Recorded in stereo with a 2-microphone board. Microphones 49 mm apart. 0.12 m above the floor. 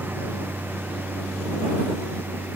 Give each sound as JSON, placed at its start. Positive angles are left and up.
{"t": 0.0, "sound": "a lawn mower", "side_deg": -45}